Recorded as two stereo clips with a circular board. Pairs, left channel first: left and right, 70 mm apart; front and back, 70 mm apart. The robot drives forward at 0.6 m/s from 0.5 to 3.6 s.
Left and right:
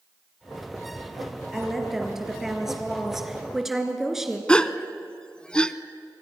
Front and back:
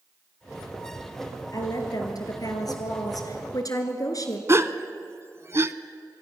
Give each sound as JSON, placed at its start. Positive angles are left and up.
{"t": 1.5, "sound": "a woman speaking", "azimuth_deg": -5, "distance_m": 4.0}
{"t": 4.5, "sound": "a gasp", "azimuth_deg": 160, "distance_m": 0.7}